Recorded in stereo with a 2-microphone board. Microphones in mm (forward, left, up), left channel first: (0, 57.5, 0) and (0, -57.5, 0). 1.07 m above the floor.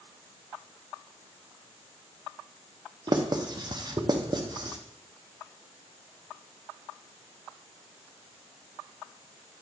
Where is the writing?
40° right (ahead or behind), 0.8 m.